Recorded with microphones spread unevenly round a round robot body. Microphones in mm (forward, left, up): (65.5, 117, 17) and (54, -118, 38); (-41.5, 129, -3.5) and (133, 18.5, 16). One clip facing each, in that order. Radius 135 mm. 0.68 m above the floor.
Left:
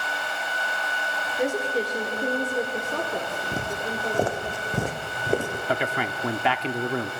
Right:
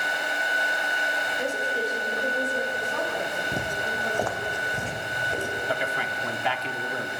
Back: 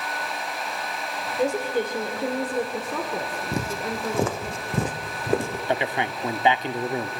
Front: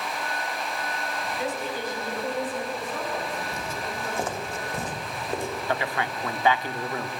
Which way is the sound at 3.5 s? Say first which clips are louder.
Left 1 dB, back 5 dB; straight behind.